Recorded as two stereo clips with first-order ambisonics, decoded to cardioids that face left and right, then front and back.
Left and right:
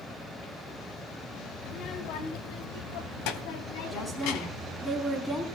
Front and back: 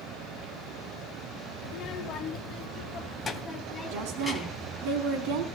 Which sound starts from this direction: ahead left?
A child speaking, at 1.6 s.